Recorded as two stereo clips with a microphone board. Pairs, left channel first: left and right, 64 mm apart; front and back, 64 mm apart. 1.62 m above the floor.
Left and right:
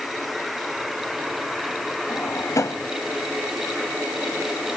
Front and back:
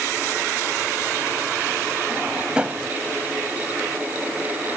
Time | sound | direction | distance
2.1 | a drawer | 105° left | ?